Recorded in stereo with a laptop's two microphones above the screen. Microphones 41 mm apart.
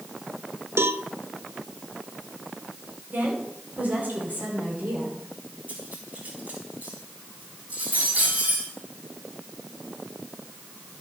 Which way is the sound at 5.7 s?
40° right (ahead or behind).